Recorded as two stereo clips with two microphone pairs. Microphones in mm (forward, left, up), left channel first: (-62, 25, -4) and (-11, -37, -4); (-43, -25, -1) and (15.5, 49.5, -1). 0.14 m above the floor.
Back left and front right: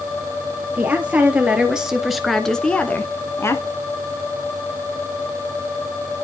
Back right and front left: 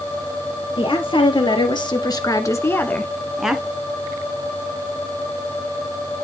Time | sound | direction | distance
0.8 | a woman speaking | 120° right | 2.5 m